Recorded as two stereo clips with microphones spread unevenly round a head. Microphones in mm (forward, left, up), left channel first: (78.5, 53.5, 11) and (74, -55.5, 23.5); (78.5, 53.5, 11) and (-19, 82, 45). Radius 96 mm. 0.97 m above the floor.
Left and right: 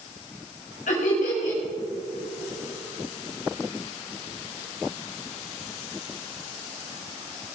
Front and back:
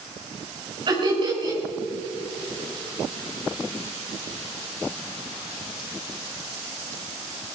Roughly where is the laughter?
Behind left.